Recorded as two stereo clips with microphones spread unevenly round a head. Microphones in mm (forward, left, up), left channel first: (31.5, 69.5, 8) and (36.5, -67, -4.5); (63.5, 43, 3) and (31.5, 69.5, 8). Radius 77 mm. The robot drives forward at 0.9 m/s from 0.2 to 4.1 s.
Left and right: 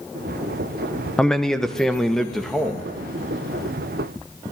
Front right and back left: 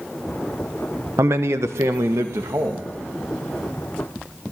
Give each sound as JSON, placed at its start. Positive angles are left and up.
{"t": 1.2, "sound": "a man speaking", "azimuth_deg": 175, "distance_m": 1.0}